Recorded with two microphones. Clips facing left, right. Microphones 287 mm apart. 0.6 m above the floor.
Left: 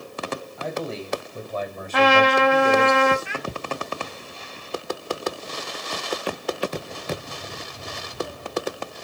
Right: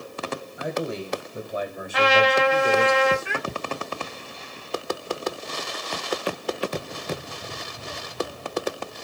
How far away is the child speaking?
About 0.8 m.